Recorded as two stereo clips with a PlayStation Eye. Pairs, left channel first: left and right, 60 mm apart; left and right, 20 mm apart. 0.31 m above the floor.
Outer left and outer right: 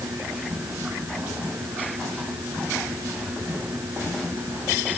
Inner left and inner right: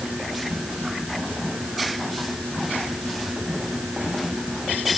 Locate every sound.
Only background noise.